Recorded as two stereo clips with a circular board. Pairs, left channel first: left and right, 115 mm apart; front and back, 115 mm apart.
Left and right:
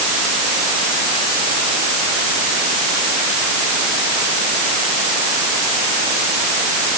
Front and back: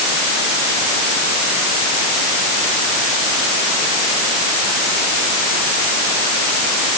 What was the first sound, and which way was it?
Only background noise.